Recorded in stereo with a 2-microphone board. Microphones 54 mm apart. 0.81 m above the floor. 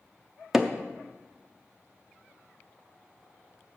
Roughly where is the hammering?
Centre.